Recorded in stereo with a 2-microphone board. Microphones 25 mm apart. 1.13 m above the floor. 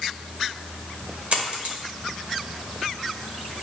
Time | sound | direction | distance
1.3 | a dropped coin | 50° right (ahead or behind) | 1.7 m